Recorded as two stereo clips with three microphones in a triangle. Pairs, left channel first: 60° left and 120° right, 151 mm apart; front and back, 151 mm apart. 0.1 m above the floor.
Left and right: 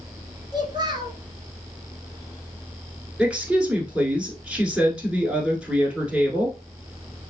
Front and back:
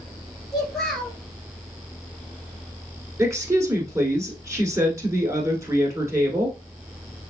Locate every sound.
0.5 s a child speaking: 85° right, 1.2 m
3.2 s a woman speaking: 170° left, 1.1 m